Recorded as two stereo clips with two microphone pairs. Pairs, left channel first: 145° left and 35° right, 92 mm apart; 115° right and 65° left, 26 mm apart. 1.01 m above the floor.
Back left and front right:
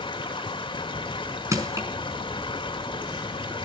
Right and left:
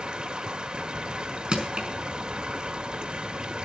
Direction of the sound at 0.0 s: 115° left.